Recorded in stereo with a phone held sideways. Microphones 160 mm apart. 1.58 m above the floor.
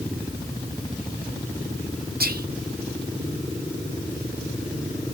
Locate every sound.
2.2 s whispering: 75° right (ahead or behind), 0.8 m